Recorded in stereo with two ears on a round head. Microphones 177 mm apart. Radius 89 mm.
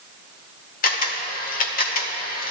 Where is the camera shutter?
45° left (ahead or behind), 1.3 m.